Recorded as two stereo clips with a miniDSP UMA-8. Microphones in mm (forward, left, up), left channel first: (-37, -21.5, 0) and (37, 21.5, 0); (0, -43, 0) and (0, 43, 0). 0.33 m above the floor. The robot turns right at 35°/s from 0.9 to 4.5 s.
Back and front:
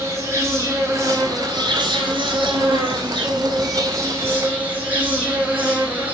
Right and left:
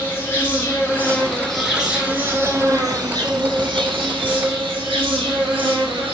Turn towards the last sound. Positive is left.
turn(degrees=100)